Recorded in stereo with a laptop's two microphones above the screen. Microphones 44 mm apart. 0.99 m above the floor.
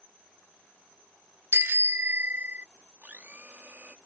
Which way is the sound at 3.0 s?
40° right (ahead or behind).